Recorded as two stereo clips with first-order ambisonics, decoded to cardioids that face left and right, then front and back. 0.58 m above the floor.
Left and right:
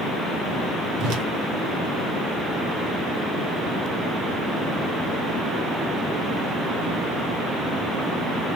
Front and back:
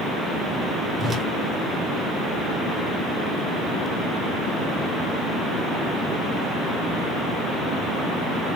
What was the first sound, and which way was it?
A whoosh, 95° right.